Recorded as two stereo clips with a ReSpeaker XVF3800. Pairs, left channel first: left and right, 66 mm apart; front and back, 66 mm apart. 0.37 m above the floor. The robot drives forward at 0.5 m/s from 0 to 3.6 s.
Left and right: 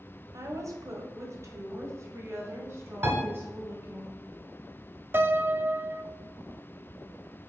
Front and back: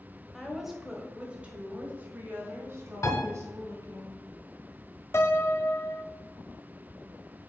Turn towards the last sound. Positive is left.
turn(degrees=-40)